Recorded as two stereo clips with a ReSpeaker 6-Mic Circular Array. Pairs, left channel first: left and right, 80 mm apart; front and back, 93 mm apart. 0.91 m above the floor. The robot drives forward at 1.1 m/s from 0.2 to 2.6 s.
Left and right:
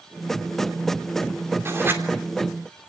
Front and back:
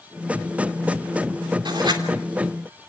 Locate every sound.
1.6 s writing: 145° right, 3 m; by 2.0 s 150° right, 3.5 m